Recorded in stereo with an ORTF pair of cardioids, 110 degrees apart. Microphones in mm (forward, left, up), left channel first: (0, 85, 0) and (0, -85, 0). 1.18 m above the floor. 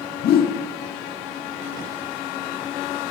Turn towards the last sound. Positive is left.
turn(degrees=65)